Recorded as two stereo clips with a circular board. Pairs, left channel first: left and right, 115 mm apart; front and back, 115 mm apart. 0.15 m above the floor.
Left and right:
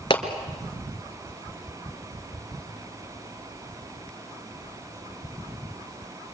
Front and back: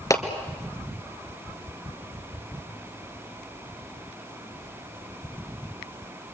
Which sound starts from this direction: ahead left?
A clap, at 0.1 s.